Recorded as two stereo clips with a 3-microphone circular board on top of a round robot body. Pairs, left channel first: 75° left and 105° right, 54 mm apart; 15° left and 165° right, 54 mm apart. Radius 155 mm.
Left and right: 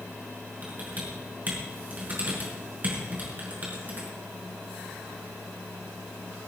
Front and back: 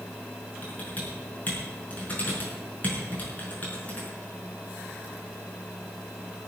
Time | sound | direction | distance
0.6 | typing on a keyboard | 45° right | 5.5 m